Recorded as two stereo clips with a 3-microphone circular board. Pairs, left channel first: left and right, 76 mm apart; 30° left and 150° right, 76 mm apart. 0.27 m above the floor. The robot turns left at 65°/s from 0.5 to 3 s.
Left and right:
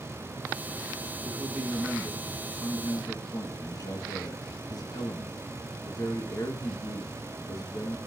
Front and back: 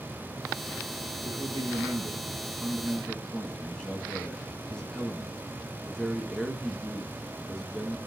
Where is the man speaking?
130° right, 3 m; by 8.0 s 115° left, 3 m.